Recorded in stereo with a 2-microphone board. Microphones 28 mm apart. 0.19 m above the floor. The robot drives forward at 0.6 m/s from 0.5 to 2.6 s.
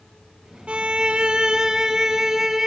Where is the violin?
45° right (ahead or behind), 0.6 m; by 2.7 s 20° right (ahead or behind), 1.5 m.